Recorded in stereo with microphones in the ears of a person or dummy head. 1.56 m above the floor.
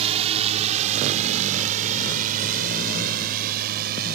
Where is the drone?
30° right (ahead or behind); by 4.2 s 50° right (ahead or behind).